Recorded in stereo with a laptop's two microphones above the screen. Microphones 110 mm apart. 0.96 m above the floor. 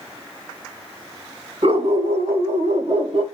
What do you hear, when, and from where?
1.6 s a dog barking: 75° right (ahead or behind), 1.5 m; by 3.2 s 55° right (ahead or behind), 0.9 m